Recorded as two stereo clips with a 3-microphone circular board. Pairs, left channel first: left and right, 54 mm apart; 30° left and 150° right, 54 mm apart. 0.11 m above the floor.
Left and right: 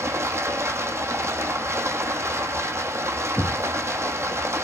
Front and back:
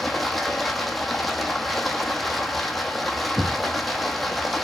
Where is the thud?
160° left, 1.2 m.